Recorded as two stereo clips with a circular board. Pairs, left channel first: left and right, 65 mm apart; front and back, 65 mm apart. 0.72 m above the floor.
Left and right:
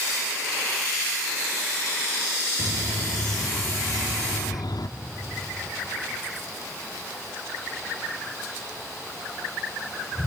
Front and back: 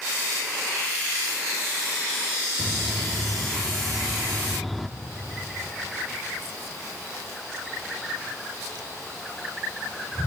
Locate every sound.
2.6 s a bird: 85° left, 0.7 m